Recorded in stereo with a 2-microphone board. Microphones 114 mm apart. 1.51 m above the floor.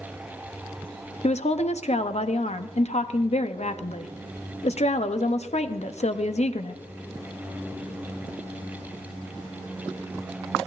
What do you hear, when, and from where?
1.2 s a woman speaking: 75° left (ahead or behind), 0.6 m